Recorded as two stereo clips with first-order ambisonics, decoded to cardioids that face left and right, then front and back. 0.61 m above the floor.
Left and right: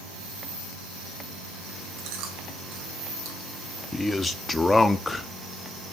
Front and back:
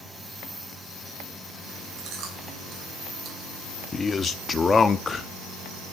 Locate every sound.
2.0 s chewing: 125° right, 3.5 m
3.9 s a man speaking: 30° left, 0.5 m